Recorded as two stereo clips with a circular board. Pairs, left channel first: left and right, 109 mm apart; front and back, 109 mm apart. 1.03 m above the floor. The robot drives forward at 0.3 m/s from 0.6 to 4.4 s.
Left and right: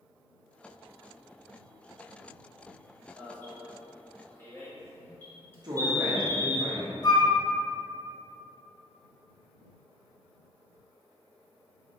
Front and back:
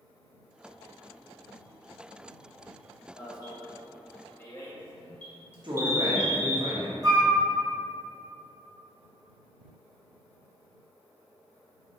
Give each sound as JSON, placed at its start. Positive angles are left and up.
{"t": 3.2, "sound": "an alarm", "azimuth_deg": 25, "distance_m": 1.1}
{"t": 5.6, "sound": "a woman speaking", "azimuth_deg": -135, "distance_m": 0.9}
{"t": 7.0, "sound": "a flute", "azimuth_deg": 130, "distance_m": 1.6}